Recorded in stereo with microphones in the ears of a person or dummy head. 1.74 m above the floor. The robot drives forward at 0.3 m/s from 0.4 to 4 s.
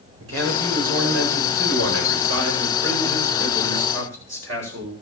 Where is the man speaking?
80° right, 9 m; by 4.9 s 75° right (ahead or behind), 9 m.